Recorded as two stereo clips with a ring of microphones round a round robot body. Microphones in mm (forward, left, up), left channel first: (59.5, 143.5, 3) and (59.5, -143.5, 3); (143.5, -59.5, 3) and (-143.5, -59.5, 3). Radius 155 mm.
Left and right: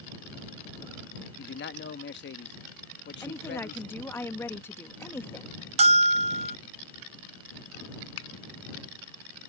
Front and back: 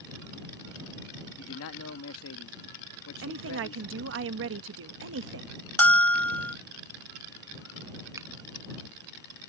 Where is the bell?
75° right.